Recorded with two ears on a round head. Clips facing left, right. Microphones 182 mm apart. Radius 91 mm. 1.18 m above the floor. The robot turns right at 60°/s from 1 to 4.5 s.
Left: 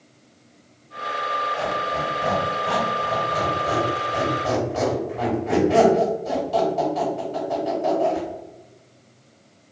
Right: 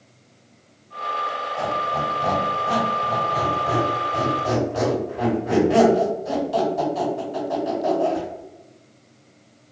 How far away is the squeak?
About 1.8 m.